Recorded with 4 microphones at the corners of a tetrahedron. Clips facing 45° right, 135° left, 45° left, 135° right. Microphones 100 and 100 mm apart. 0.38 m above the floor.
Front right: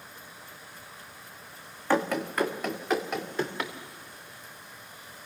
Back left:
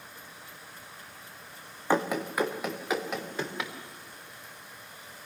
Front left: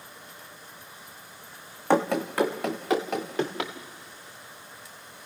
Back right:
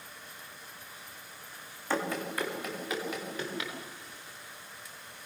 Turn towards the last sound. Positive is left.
turn(degrees=45)